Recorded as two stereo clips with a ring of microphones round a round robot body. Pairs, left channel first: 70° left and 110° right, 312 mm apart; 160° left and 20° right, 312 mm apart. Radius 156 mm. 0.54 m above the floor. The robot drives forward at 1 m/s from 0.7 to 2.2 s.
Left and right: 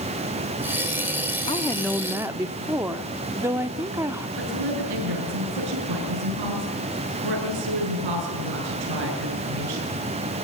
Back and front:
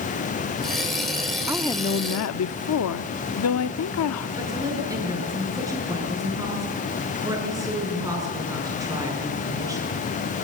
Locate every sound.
1.5 s a woman speaking: 35° left, 0.6 m; by 4.3 s 170° left, 0.8 m
4.4 s a woman speaking: 100° right, 8 m